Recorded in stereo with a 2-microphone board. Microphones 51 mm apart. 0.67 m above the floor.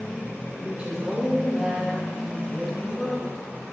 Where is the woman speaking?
35° right (ahead or behind), 3 m; by 3.5 s 10° left (ahead or behind), 4.5 m.